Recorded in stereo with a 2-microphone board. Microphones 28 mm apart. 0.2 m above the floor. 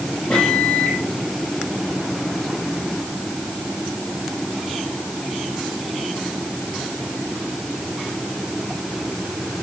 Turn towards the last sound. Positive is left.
turn(degrees=50)  # may be behind; listen again after turning